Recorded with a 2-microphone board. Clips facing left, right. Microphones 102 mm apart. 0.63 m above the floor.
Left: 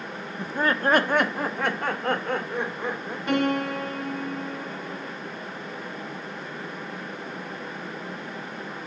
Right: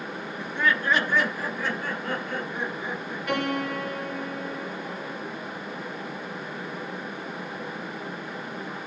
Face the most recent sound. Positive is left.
turn(degrees=25)  # may be behind; listen again after turning